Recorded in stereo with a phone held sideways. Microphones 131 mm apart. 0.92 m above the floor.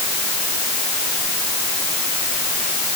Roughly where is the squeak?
No squeak in this recording.